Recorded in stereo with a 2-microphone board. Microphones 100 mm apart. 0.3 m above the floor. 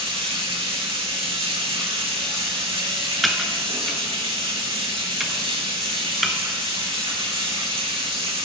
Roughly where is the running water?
Right.